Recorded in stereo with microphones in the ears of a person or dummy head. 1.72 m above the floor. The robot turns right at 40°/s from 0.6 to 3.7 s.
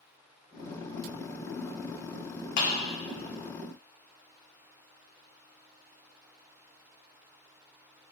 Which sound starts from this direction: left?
A clap, at 2.6 s.